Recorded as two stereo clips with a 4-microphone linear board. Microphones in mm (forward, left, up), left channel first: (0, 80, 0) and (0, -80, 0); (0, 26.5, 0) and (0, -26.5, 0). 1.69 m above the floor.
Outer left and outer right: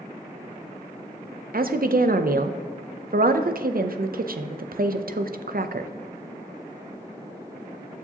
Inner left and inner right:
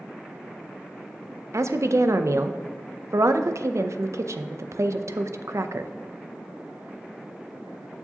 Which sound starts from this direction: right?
A woman speaking, at 1.5 s.